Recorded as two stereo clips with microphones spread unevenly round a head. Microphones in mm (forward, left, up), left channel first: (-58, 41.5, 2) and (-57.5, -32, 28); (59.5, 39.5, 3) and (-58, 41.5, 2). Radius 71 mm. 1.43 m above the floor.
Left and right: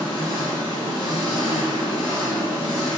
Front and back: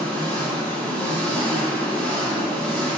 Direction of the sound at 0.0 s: 70° left.